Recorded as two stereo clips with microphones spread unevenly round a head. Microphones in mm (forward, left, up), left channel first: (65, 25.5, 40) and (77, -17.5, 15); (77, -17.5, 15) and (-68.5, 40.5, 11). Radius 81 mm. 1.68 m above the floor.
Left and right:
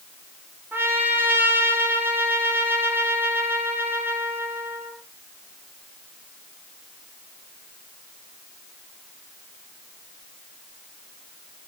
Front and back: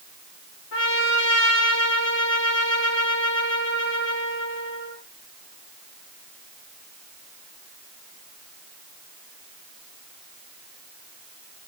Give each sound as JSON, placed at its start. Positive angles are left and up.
{"t": 0.7, "sound": "a trumpet", "azimuth_deg": -30, "distance_m": 4.0}